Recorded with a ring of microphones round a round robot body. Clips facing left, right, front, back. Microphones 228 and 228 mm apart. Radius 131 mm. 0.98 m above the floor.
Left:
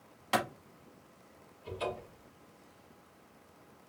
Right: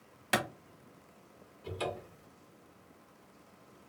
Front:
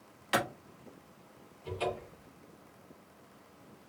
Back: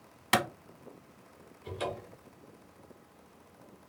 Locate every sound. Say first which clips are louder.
0.3 s a clap: left 1 dB, back 2 dB; 155° right, 0.9 m
1.6 s a cupboard door: even, front 2 dB; 110° right, 2 m